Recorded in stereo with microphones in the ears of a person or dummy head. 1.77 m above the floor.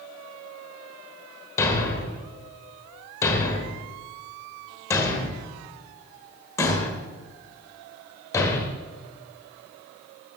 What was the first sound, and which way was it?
A thud, 15° left (ahead or behind).